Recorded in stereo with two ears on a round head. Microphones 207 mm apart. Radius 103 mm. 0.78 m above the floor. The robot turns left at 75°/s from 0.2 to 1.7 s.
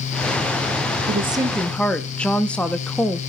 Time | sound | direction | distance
1.1 | a woman speaking | 140° right | 0.8 m